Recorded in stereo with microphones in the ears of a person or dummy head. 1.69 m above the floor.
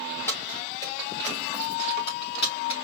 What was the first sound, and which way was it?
Keys jangling, 20° left (ahead or behind).